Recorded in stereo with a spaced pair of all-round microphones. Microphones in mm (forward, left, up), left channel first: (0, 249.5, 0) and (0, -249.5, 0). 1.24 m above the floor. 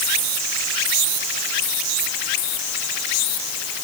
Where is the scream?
I don't hear a scream.